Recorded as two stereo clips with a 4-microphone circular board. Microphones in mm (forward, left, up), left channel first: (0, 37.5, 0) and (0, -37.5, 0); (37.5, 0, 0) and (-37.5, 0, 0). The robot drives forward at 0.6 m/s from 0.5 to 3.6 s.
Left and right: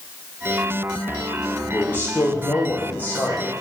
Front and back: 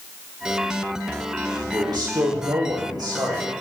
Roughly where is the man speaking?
Behind left.